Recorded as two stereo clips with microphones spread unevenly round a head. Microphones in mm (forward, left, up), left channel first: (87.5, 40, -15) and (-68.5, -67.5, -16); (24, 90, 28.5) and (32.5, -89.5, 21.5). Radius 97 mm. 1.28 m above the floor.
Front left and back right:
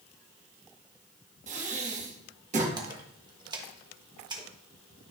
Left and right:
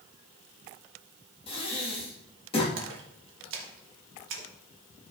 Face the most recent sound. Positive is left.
turn(degrees=-75)